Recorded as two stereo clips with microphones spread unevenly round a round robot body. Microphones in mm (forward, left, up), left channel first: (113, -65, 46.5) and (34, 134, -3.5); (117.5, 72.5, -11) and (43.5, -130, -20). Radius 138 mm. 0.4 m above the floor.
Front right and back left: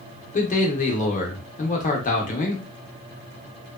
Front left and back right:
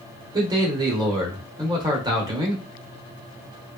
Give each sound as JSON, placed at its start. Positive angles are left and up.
{"t": 0.3, "sound": "a man speaking", "azimuth_deg": -90, "distance_m": 0.8}